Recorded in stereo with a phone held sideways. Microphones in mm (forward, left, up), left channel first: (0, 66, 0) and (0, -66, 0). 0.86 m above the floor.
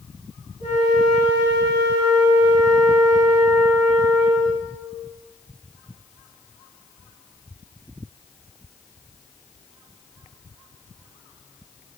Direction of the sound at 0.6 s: 65° left (ahead or behind).